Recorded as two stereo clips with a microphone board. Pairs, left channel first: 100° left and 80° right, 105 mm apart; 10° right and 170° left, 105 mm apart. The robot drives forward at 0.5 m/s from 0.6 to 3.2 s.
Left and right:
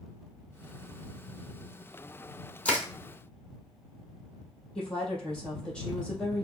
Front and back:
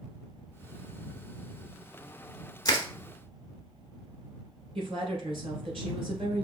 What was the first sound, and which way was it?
Crushing, 25° left.